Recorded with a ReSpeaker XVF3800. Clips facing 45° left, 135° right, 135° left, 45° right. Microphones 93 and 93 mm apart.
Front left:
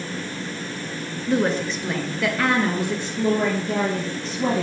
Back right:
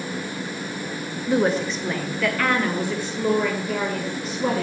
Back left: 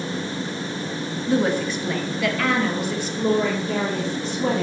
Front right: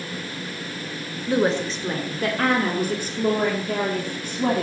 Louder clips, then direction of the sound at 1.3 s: Back right 1 dB, even; 70° right.